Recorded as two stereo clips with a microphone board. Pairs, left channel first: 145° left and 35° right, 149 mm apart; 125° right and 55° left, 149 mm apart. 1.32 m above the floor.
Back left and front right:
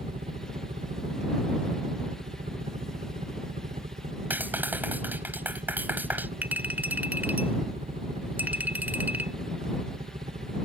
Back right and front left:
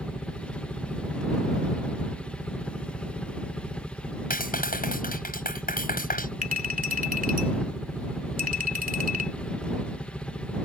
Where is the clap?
110° right.